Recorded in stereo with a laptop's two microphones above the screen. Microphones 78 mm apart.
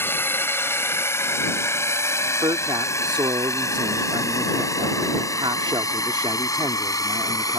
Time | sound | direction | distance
0.0 | a drone | 30° left (ahead or behind) | ?
2.4 | a man speaking | 80° right | ?